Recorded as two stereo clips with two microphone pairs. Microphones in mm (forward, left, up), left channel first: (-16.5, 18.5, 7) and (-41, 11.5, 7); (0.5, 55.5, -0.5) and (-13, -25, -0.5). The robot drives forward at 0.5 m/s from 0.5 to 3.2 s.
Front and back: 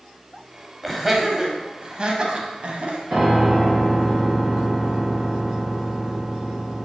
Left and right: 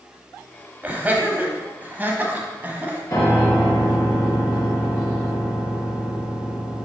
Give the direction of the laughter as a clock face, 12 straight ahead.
3 o'clock.